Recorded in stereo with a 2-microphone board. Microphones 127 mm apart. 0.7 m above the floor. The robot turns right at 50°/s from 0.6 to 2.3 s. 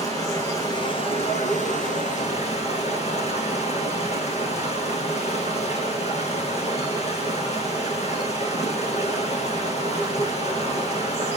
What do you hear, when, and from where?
0.0 s running water: 30° left, 7 m; by 11.4 s 115° left, 7 m